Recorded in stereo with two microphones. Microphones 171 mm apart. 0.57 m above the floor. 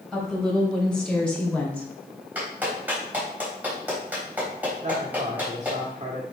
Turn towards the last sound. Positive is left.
turn(degrees=-40)  # may be behind; listen again after turning